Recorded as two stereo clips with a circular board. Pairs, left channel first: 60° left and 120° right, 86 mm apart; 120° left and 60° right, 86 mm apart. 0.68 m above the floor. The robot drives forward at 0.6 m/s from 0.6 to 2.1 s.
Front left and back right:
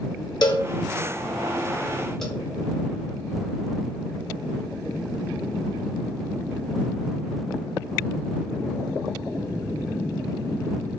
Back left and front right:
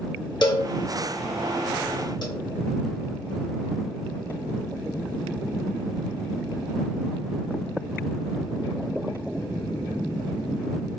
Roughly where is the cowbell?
Left.